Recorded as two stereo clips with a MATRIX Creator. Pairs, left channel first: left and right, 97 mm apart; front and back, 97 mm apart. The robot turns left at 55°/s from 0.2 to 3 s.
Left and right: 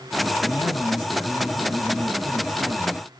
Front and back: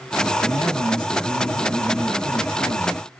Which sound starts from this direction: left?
A man speaking, at 0.4 s.